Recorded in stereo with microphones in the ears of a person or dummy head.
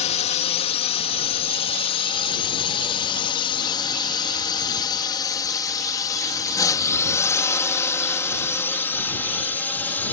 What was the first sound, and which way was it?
A drone, 35° left (ahead or behind).